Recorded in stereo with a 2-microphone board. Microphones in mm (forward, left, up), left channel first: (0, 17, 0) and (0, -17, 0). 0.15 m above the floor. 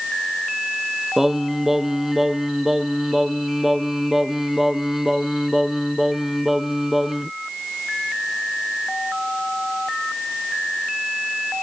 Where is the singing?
10° right (ahead or behind).